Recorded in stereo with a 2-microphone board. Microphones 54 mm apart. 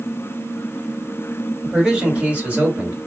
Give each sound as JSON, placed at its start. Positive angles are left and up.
{"t": 1.6, "sound": "a man speaking", "side_deg": -20, "distance_m": 1.9}